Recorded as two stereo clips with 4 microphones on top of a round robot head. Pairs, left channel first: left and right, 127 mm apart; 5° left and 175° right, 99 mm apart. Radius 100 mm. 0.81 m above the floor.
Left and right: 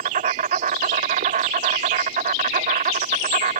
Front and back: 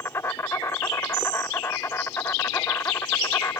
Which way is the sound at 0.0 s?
70° right.